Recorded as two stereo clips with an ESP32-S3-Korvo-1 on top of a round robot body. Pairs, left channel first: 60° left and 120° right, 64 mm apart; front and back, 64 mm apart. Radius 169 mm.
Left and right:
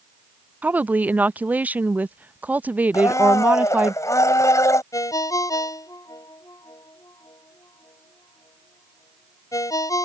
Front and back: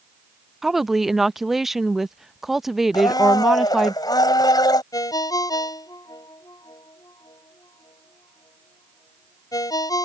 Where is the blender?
20° left.